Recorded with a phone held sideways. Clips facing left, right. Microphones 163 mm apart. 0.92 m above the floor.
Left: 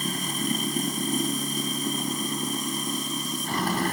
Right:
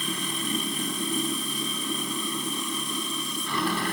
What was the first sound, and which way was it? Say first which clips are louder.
Running water: left 2 dB; 45° left (ahead or behind).